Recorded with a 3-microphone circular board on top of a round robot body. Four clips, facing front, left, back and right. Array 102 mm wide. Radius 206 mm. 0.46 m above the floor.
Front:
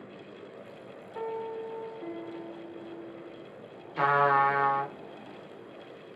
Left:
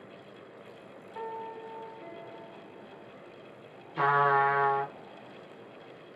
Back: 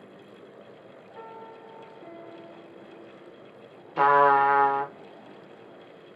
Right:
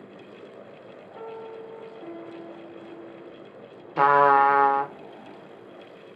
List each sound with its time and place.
1.1 s a piano: 10° left, 1.5 m
4.0 s a trumpet: 130° right, 0.6 m